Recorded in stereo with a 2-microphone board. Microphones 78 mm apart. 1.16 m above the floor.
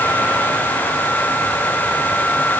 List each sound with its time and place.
Only background noise.